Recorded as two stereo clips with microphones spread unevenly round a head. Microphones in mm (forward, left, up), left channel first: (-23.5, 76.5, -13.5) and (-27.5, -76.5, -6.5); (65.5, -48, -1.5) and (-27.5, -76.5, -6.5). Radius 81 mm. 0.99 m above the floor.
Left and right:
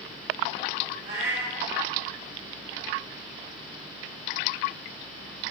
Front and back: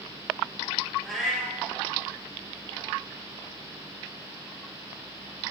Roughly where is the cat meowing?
Right.